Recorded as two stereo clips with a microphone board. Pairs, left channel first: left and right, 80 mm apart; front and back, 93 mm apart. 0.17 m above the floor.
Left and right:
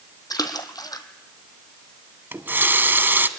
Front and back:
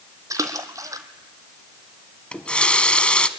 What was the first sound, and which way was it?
A splash, 125° left.